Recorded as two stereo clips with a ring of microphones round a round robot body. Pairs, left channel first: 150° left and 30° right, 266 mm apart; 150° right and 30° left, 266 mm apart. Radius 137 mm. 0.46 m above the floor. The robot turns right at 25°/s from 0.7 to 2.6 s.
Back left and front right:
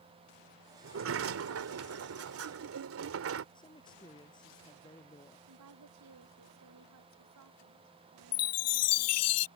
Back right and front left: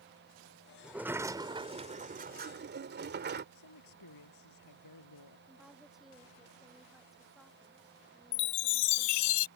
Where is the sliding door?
55° right; by 3.5 s 10° right.